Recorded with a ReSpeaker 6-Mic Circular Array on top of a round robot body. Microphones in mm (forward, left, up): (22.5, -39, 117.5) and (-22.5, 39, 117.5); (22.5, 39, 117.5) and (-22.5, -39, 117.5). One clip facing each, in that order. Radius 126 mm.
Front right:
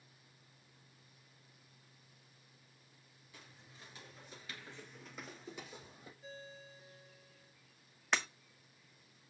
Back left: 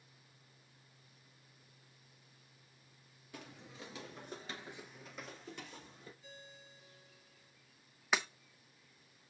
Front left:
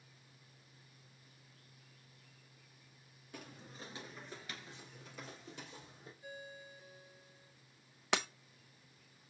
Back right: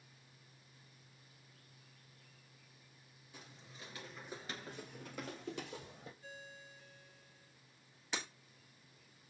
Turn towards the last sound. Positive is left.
turn(degrees=35)